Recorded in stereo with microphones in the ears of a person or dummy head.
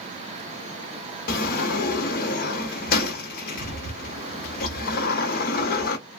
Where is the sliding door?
50° left (ahead or behind), 0.9 m.